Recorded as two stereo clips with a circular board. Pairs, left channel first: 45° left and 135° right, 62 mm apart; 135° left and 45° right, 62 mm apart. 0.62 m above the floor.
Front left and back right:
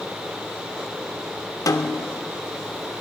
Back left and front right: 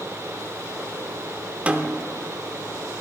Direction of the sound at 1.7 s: 25° left.